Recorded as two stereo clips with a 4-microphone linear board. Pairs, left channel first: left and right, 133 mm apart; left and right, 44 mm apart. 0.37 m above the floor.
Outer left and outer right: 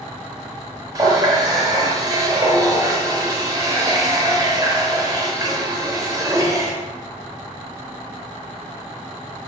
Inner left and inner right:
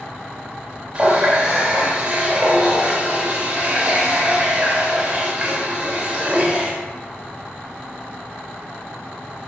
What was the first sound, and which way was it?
A running tap, 30° right (ahead or behind).